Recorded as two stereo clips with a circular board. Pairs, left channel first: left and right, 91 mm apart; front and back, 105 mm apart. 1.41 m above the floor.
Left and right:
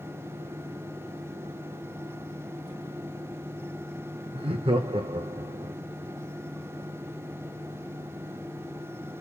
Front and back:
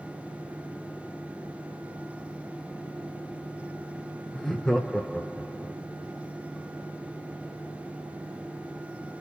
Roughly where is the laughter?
Right.